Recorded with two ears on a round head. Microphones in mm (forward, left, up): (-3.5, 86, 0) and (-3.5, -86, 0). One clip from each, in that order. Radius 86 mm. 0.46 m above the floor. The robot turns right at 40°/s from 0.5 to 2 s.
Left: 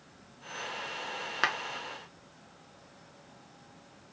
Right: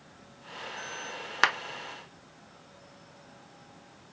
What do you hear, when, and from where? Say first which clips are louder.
1.4 s a clap: right 5 dB; 25° right (ahead or behind), 0.5 m